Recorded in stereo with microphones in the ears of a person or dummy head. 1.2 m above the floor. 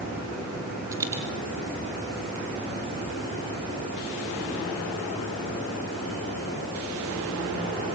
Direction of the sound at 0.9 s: 20° right (ahead or behind).